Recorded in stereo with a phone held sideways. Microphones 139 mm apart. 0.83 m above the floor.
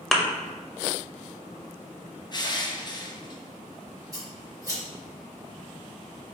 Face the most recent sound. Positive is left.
turn(degrees=-25)  # may be behind; listen again after turning